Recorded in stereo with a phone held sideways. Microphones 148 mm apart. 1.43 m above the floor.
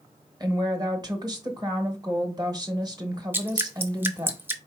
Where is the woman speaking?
25° right (ahead or behind), 1.0 m.